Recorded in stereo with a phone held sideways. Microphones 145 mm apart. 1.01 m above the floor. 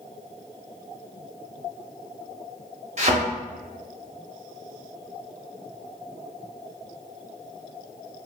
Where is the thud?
50° right (ahead or behind), 0.6 m.